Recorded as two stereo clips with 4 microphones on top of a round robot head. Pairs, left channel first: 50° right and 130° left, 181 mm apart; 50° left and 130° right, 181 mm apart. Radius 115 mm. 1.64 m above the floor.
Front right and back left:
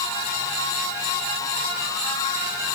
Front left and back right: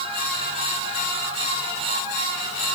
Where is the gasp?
No gasp in this recording.